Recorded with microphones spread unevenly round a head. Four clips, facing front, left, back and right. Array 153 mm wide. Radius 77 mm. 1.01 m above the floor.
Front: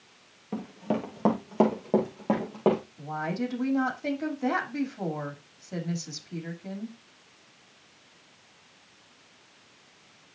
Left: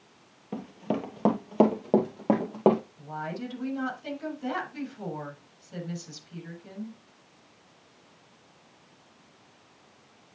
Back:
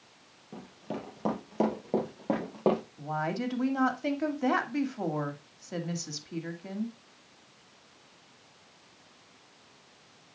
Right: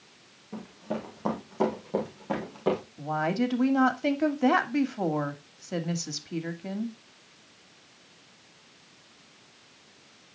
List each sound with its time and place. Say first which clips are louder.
0.5 s running footsteps: left 3 dB, front 9 dB; 40° left, 1.7 m; by 2.8 s 85° left, 2.5 m
3.0 s a woman speaking: right 8 dB, front 1 dB; 95° right, 2 m